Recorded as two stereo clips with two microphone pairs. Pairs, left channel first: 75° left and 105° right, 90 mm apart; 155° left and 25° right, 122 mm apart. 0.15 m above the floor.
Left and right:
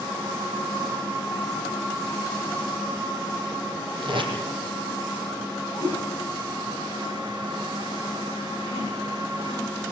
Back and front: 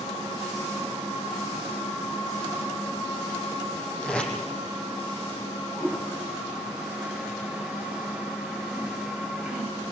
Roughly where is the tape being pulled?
Behind right.